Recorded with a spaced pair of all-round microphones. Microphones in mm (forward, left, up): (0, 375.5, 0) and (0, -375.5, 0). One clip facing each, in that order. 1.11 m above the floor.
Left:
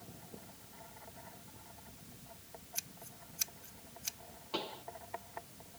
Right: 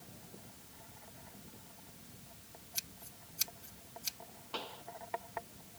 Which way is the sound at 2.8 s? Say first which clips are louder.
Left 1 dB; 70° right (ahead or behind).